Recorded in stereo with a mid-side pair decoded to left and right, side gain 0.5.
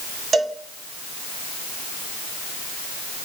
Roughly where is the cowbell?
Ahead right.